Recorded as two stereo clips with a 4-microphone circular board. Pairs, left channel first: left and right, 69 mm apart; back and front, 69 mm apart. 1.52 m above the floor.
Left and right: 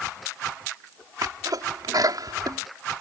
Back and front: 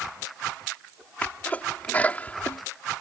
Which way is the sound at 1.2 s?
115° right.